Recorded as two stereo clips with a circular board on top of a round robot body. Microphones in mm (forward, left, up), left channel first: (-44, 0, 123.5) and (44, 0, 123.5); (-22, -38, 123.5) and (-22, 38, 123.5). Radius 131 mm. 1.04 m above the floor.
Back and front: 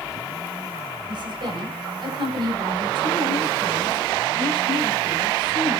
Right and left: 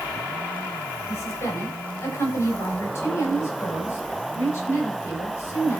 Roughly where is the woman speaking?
Ahead right.